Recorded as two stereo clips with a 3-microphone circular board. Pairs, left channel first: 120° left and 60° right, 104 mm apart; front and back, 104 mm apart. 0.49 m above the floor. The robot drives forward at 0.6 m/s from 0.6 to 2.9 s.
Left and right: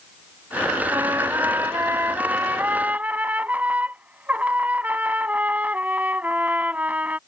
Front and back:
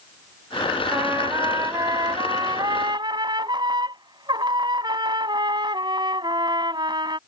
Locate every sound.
0.9 s a trumpet: 120° right; by 7.2 s 135° right